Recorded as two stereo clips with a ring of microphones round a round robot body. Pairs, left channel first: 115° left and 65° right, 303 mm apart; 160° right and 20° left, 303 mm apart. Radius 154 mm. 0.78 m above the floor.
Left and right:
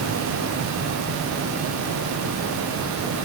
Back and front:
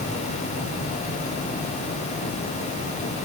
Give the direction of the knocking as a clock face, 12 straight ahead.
I don't hear knocking.